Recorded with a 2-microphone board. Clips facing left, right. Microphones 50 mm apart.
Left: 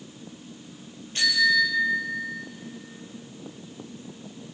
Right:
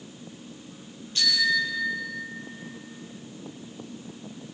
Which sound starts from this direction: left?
A bicycle bell, at 1.1 s.